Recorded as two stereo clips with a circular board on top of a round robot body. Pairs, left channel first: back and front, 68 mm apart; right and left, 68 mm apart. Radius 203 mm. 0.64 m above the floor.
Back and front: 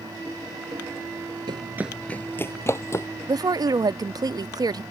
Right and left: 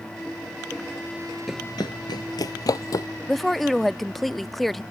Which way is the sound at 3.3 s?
Straight ahead.